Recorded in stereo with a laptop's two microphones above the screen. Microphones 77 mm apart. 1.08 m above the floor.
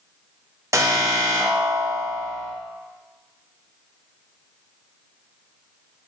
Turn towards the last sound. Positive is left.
turn(degrees=-40)  # may be behind; listen again after turning